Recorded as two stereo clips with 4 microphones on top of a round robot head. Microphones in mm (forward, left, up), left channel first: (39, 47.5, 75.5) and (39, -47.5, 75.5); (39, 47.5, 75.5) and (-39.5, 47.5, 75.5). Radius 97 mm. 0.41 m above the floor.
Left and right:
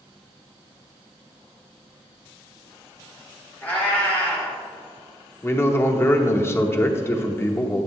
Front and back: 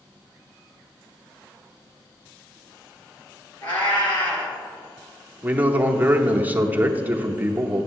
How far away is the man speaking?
About 0.8 m.